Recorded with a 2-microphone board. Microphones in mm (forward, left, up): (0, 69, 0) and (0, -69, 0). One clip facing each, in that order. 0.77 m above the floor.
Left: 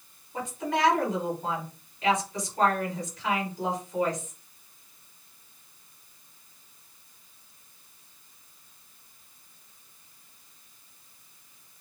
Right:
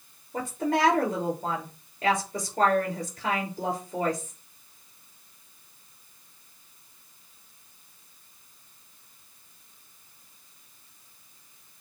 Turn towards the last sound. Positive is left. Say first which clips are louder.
# right 3 dB
turn(degrees=-50)  # may be behind; listen again after turning